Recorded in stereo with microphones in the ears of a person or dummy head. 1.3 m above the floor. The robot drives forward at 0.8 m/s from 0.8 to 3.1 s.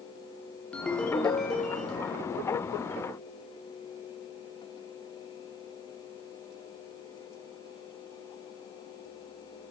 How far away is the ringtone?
About 0.6 m.